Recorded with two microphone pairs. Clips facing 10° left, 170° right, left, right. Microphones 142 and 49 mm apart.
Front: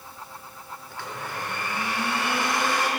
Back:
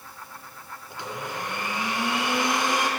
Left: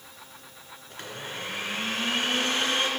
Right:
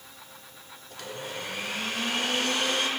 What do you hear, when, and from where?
0.9 s a blender: 130° left, 1.3 m